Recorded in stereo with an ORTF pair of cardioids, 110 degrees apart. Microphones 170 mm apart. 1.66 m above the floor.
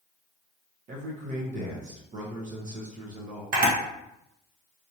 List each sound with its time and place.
0.9 s a man speaking: 50° right, 1.0 m
3.5 s a camera shutter: 55° right, 1.2 m